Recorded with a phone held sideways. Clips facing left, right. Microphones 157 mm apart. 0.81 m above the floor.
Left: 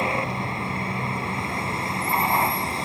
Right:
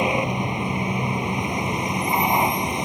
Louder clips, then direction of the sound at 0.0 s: Right 4 dB; 15° right (ahead or behind).